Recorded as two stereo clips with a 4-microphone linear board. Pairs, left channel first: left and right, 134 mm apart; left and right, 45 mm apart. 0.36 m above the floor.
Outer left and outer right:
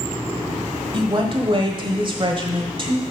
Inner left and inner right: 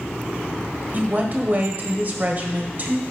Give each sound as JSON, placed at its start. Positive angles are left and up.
{"t": 0.9, "sound": "a woman speaking", "side_deg": -40, "distance_m": 1.2}